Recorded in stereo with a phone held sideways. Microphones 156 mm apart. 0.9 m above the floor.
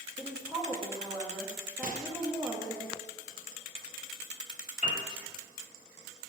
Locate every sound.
0.2 s a woman speaking: 5° left (ahead or behind), 1.6 m
1.8 s a microwave: 60° right (ahead or behind), 0.8 m
4.8 s a piano: 55° left (ahead or behind), 2 m